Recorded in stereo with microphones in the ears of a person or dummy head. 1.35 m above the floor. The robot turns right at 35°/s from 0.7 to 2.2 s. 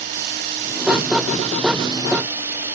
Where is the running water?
65° right, 3 m; by 2.8 s 15° right, 3 m.